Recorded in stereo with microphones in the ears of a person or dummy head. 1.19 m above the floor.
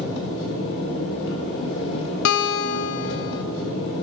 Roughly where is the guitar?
Left.